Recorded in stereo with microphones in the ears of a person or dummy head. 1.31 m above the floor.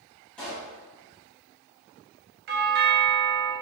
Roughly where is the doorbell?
Right.